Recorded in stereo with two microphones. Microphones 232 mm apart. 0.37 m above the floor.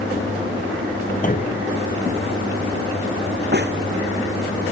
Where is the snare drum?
45° right (ahead or behind).